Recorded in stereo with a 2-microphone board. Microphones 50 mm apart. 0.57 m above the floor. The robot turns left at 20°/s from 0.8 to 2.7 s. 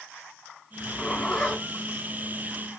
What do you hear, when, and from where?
0.8 s a zipper: centre (ahead or behind), 2.5 m; by 1.6 s 15° left (ahead or behind), 2.5 m